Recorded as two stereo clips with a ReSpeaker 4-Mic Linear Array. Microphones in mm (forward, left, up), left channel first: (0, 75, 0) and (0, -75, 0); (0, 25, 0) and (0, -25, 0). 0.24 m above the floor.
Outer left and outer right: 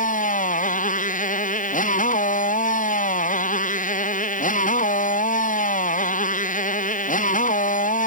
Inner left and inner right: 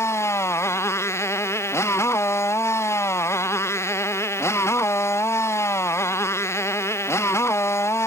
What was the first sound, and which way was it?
A motorcycle, 60° left (ahead or behind).